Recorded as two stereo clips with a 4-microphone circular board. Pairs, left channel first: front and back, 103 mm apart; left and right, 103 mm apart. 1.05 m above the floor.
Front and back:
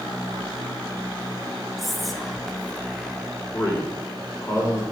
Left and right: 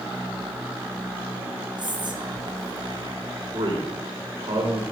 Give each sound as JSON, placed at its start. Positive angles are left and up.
{"t": 1.8, "sound": "whispering", "azimuth_deg": -90, "distance_m": 1.1}
{"t": 3.5, "sound": "a man speaking", "azimuth_deg": -60, "distance_m": 3.0}